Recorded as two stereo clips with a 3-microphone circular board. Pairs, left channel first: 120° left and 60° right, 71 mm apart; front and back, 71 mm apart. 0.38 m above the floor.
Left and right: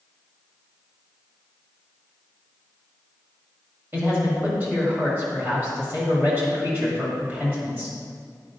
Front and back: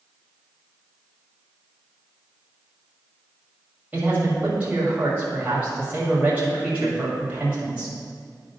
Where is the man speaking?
115° right, 2 m.